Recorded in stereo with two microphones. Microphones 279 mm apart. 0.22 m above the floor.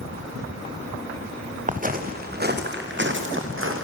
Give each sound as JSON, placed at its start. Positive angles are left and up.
{"t": 1.7, "sound": "footsteps", "side_deg": -25, "distance_m": 3.0}